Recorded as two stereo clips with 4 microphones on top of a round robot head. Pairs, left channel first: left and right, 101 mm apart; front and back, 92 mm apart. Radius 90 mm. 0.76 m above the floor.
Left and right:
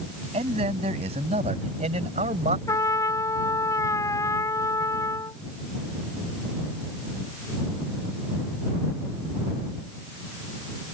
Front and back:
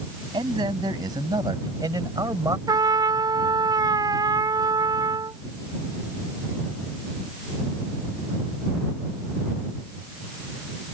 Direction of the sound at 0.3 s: 125° right.